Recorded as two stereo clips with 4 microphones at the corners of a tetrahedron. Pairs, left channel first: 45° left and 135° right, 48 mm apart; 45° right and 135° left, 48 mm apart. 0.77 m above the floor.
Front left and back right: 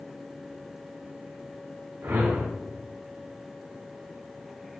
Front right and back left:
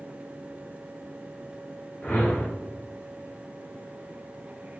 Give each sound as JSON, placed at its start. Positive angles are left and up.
{"t": 2.0, "sound": "a whoosh", "azimuth_deg": -100, "distance_m": 1.1}